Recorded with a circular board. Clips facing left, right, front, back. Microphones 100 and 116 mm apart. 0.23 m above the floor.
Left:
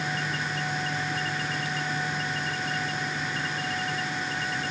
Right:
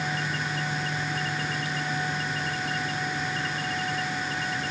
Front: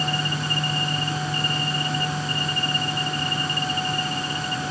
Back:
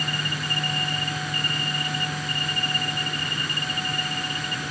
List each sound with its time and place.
Only background noise.